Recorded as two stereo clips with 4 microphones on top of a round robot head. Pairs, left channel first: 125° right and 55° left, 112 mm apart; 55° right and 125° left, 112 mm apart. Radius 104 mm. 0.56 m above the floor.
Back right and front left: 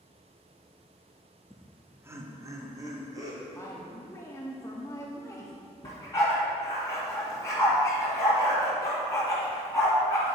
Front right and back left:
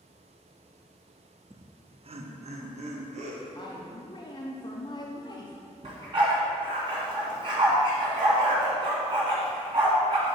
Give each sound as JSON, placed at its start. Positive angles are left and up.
{"t": 1.5, "sound": "laughter", "azimuth_deg": 150, "distance_m": 0.6}
{"t": 3.5, "sound": "a woman speaking", "azimuth_deg": -75, "distance_m": 0.8}
{"t": 5.8, "sound": "a dog barking", "azimuth_deg": 175, "distance_m": 1.9}